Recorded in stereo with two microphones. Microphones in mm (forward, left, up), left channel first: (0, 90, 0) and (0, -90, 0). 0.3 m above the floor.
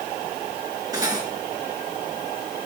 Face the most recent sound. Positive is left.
turn(degrees=-20)  # may be behind; listen again after turning